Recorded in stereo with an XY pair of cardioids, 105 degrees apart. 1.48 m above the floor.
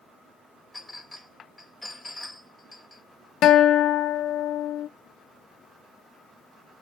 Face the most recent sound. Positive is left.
turn(degrees=70)